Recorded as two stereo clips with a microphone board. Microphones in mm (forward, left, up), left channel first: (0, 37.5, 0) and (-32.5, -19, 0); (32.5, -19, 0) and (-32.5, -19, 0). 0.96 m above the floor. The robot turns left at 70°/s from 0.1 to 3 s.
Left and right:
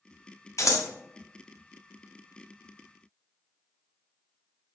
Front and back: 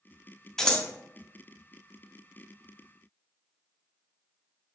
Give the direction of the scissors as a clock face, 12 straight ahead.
9 o'clock.